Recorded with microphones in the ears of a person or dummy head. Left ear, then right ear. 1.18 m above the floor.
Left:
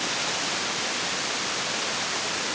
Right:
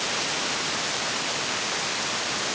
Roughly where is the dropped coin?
No dropped coin in this recording.